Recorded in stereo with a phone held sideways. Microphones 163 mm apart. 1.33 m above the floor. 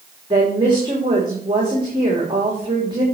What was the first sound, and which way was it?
A woman speaking, 30° right (ahead or behind).